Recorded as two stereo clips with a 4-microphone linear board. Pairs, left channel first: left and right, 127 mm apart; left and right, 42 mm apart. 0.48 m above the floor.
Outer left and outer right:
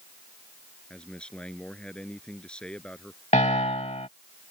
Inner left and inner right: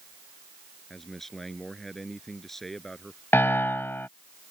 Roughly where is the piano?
Left.